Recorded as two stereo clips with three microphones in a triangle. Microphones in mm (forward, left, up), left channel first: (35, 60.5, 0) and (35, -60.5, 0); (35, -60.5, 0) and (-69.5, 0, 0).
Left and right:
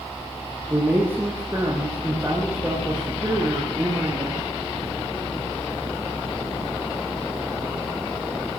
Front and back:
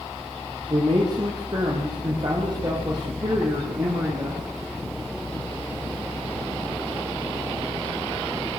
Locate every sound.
0.7 s a man speaking: 160° right, 5.5 m